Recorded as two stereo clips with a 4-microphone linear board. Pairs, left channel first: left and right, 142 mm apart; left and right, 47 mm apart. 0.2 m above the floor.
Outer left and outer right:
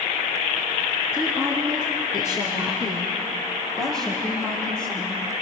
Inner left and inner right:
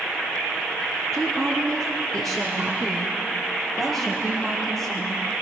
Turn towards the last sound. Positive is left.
turn(degrees=10)  # may be behind; listen again after turning